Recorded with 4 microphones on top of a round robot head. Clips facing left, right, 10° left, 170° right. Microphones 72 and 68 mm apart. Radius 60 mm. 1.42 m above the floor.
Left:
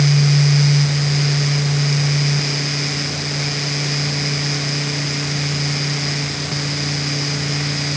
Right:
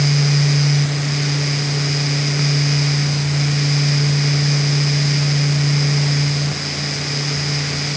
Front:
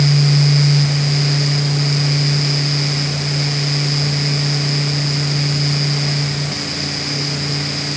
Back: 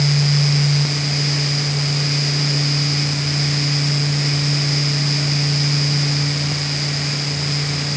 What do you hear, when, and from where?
Only background noise.